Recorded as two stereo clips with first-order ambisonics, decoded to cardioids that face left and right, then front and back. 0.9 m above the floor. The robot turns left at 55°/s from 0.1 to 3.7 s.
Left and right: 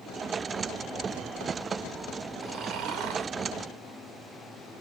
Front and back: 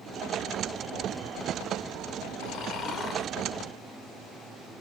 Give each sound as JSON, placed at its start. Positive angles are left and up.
{"t": 2.4, "sound": "snoring", "azimuth_deg": -35, "distance_m": 0.7}